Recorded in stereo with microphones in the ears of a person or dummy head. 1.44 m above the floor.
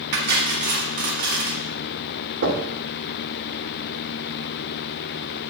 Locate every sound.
0.1 s cutlery clinking: 55° right (ahead or behind), 1.4 m
2.4 s knocking: 75° right (ahead or behind), 2 m